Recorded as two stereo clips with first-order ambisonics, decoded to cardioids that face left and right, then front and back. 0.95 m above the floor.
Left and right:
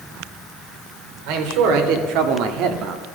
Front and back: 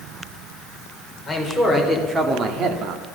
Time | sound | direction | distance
1.3 | a man speaking | 85° right | 3 m